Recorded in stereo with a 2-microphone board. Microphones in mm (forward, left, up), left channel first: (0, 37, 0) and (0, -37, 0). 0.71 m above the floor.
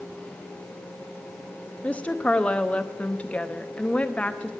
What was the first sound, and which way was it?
A woman speaking, 20° left (ahead or behind).